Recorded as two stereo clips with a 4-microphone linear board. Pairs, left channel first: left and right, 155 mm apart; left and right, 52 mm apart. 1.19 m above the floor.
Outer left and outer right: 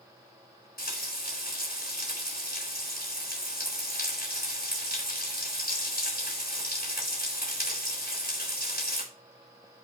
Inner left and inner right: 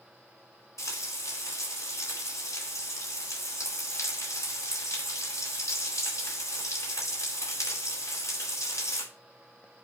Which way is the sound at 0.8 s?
80° left.